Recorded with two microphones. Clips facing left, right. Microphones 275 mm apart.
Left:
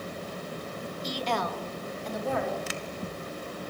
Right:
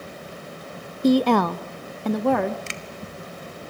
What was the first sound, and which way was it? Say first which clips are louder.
A woman speaking: right 16 dB; 60° right (ahead or behind).